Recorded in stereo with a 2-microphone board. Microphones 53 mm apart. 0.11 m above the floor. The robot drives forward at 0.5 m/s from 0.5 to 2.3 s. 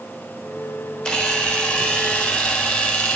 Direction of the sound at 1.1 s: 20° left (ahead or behind).